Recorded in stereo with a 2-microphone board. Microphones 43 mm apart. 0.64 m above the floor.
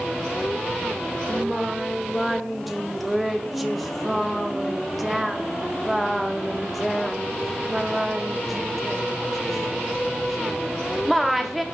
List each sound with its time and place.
1.3 s singing: centre (ahead or behind), 0.6 m